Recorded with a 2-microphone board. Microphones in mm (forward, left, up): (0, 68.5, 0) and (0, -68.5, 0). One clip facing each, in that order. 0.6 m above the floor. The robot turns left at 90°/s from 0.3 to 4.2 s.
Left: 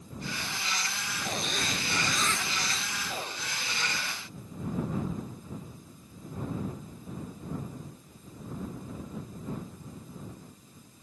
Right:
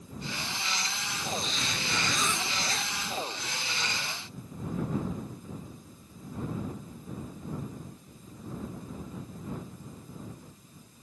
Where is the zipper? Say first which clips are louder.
Left 1 dB; 85° left; by 2.9 s 65° right.